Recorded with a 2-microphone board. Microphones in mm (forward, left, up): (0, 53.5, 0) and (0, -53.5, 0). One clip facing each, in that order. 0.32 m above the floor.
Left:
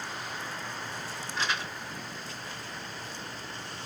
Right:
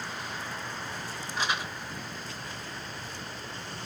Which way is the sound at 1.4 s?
15° right (ahead or behind).